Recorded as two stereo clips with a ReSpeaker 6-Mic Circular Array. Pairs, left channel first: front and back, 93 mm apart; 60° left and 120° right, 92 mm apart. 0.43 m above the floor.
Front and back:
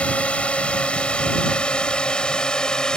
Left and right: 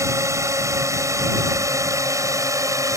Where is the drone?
75° right; by 3.0 s 80° right.